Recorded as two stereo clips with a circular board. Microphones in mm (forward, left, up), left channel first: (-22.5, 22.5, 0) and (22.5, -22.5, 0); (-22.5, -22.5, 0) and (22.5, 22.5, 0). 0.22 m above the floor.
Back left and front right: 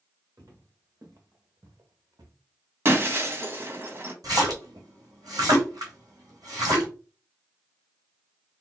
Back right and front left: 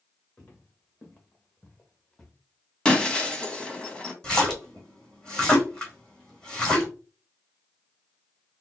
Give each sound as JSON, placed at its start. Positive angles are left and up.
{"t": 0.4, "sound": "footsteps", "azimuth_deg": -75, "distance_m": 2.5}
{"t": 2.9, "sound": "breaking glass", "azimuth_deg": -70, "distance_m": 0.9}
{"t": 4.2, "sound": "a splash", "azimuth_deg": -60, "distance_m": 1.7}